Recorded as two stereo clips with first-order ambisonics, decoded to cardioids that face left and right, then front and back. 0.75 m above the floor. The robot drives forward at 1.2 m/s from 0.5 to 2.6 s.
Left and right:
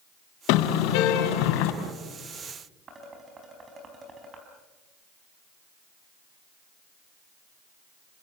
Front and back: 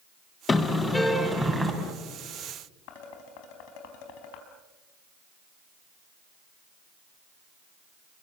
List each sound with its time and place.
0.5 s a car horn: 70° left, 3.5 m; by 1.7 s 95° left, 3 m
2.9 s dishes clattering: 20° right, 4.5 m